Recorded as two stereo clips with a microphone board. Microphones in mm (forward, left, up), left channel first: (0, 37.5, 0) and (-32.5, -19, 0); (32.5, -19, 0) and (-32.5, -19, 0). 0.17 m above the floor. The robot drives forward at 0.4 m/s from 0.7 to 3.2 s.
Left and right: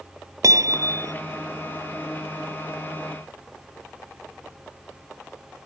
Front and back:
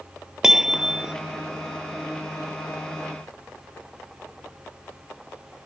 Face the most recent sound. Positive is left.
turn(degrees=-120)